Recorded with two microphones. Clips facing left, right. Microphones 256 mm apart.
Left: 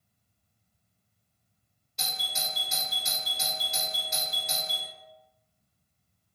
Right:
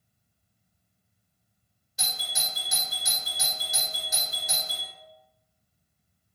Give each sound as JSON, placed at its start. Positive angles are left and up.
{"t": 2.0, "sound": "a doorbell", "side_deg": -5, "distance_m": 1.1}